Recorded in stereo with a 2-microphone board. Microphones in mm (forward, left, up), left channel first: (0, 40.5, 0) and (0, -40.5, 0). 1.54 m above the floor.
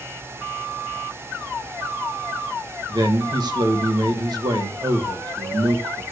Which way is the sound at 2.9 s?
65° right (ahead or behind).